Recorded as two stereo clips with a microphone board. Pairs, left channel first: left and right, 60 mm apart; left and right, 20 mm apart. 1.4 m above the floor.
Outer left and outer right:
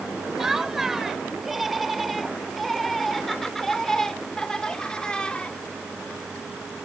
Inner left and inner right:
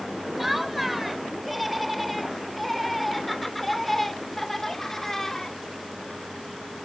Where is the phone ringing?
I don't hear a phone ringing.